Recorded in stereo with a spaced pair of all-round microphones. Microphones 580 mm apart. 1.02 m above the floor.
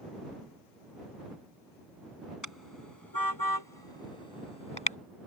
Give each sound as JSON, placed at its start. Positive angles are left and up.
{"t": 2.4, "sound": "a car horn", "side_deg": 30}